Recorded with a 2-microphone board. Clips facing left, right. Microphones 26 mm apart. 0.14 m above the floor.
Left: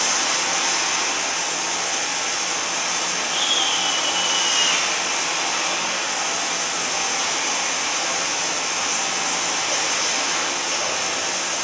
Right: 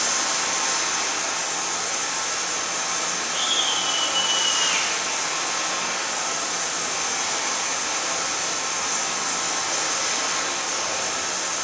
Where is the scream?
40° left (ahead or behind), 5 m.